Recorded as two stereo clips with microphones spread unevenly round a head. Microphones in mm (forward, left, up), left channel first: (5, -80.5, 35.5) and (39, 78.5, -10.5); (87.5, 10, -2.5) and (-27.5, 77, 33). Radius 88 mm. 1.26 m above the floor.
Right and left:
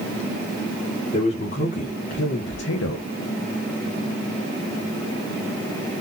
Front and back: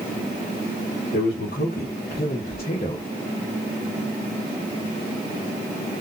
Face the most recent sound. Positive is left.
turn(degrees=-100)